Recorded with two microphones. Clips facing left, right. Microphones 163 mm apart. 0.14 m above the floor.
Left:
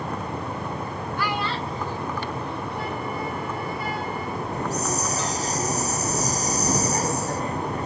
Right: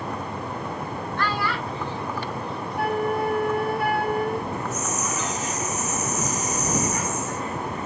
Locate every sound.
1.2 s a child speaking: 5° left (ahead or behind); by 3.2 s 70° left (ahead or behind)
2.8 s a flute: 65° right (ahead or behind)
4.5 s a hiss: 35° left (ahead or behind)